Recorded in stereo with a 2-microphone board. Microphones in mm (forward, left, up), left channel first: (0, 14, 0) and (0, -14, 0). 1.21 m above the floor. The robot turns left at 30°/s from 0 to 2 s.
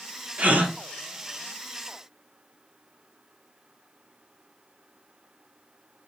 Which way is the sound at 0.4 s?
55° right (ahead or behind).